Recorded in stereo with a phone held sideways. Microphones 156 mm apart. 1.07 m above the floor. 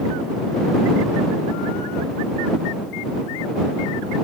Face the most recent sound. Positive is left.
No sound to turn to.